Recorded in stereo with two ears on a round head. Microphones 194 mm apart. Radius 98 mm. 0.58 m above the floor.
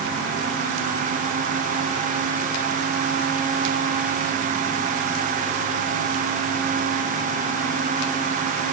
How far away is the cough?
I don't hear a cough.